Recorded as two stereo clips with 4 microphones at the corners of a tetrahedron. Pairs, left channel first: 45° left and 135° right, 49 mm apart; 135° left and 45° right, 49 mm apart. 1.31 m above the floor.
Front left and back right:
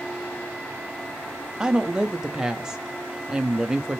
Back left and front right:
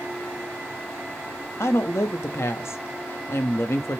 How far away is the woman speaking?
About 0.8 m.